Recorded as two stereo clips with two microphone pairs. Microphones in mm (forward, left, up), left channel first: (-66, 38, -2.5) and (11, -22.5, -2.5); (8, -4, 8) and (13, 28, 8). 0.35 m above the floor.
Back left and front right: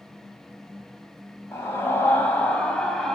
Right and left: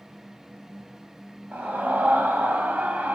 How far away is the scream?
About 2.5 m.